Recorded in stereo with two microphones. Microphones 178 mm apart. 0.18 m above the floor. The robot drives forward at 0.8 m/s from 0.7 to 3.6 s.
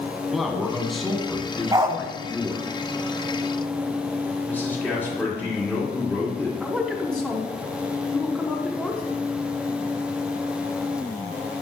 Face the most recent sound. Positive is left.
turn(degrees=5)  # may be behind; listen again after turning